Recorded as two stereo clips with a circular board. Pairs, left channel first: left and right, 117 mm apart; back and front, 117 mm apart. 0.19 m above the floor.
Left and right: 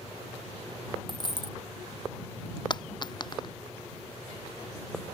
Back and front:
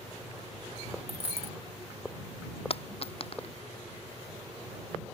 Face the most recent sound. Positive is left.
turn(degrees=140)